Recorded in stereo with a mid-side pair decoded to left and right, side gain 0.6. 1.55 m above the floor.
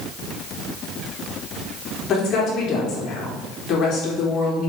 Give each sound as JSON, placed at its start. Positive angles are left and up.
{"t": 2.1, "sound": "a woman speaking", "azimuth_deg": 50, "distance_m": 4.5}